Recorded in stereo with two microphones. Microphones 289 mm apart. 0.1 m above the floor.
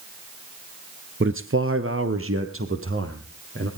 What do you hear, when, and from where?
1.2 s a man speaking: 40° right (ahead or behind), 1.4 m